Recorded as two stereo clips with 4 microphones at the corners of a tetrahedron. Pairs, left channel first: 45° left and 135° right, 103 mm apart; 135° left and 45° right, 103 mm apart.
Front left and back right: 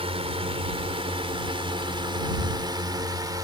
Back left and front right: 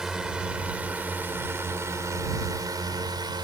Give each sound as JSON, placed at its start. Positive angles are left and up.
{"t": 0.0, "sound": "a drone", "azimuth_deg": -130}